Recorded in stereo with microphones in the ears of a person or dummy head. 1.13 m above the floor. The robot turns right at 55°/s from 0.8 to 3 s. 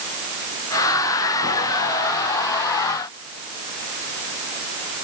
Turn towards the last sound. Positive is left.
No sound to turn to.